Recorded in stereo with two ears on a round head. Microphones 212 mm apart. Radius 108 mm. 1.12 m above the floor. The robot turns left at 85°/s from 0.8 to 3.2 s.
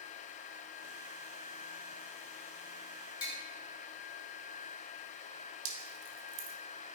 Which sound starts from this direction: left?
Tapping, at 3.2 s.